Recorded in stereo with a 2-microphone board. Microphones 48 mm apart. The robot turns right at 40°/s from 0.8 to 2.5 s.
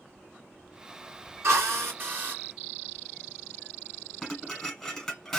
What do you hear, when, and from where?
1.4 s a drill: 70° right, 2 m; by 2.4 s 35° right, 2 m
4.2 s dishes clattering: 5° left (ahead or behind), 1.6 m